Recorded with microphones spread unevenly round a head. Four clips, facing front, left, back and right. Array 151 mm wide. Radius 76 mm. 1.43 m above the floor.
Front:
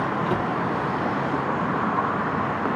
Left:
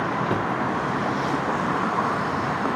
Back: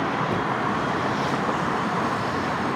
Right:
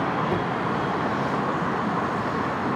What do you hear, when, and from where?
0.3 s a cupboard door: 75° left, 1.0 m